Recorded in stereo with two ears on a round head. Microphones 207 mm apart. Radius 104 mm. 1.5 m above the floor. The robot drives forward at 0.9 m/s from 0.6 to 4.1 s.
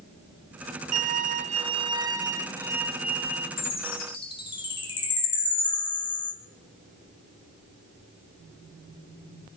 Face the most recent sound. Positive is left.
turn(degrees=20)  # may be behind; listen again after turning